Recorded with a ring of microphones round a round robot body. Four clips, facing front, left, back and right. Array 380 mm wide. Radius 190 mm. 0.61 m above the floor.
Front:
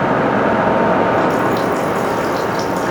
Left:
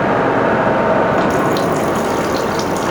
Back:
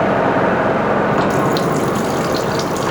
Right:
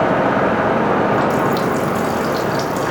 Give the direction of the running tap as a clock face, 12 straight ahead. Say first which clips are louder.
Left 2 dB, front 1 dB; 7 o'clock.